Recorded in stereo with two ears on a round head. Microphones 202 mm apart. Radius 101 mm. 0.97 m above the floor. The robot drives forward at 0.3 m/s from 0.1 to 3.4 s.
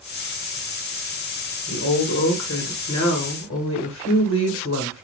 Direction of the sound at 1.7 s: 55° left (ahead or behind).